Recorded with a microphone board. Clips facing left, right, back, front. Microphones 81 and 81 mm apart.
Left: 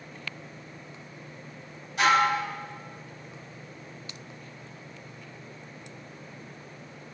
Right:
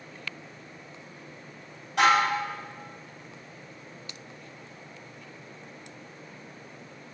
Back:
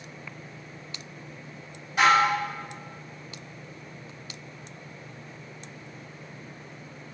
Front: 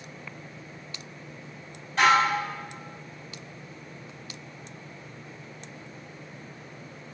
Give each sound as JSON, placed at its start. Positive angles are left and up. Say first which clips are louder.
{"t": 2.0, "sound": "dishes clattering", "louder": "even, back 1 dB", "azimuth_deg": -100, "distance_m": 2.5}